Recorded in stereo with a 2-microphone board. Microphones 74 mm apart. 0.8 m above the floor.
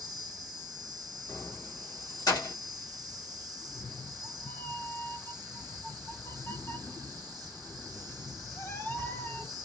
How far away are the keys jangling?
About 1.3 m.